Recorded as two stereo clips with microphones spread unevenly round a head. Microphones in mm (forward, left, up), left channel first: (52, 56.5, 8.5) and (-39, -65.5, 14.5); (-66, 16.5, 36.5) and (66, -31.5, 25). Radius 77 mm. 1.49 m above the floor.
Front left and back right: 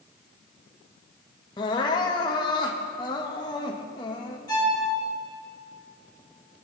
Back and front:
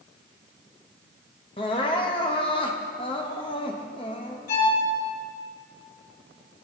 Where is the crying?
115° left, 1.0 m.